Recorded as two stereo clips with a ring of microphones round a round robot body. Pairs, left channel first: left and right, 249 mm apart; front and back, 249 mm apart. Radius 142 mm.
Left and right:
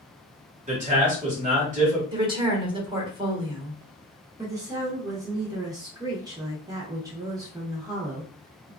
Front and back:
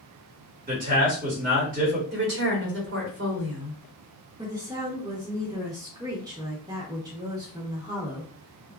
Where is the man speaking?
140° right, 1.7 m.